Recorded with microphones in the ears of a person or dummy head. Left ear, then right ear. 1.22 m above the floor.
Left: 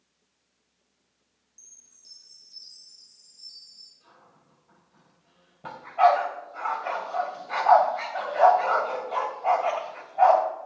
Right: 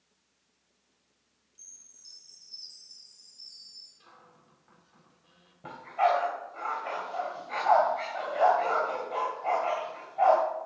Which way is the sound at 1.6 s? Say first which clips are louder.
Right 1 dB; 5° left (ahead or behind).